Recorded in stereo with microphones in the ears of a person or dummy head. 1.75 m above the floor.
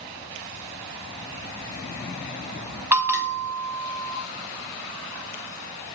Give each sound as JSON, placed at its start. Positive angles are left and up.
{"t": 2.9, "sound": "a bell", "side_deg": -10, "distance_m": 1.0}